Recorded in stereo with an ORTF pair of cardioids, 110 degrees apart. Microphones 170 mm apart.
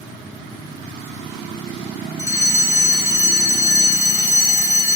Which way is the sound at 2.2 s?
20° left.